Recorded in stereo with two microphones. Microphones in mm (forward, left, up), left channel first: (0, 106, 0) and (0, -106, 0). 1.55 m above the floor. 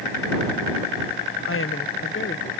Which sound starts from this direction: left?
A woman speaking, at 1.4 s.